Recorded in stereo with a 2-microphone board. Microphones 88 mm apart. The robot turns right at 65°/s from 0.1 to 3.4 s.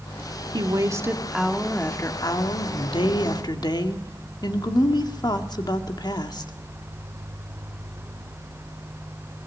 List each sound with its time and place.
0.5 s a woman speaking: 65° right, 1.9 m; by 6.5 s 125° left, 1.9 m